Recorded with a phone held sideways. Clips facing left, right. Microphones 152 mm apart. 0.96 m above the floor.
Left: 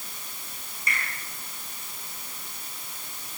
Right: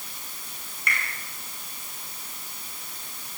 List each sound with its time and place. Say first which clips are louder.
0.9 s a finger snap: right 1 dB; 70° right (ahead or behind), 7.5 m